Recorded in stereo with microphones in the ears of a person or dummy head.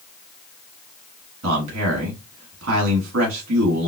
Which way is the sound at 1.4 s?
75° right (ahead or behind).